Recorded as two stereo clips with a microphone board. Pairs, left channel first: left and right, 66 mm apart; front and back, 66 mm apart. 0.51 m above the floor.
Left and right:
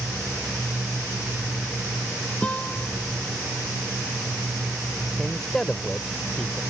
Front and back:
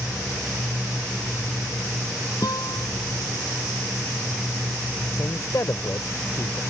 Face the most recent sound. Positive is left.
turn(degrees=10)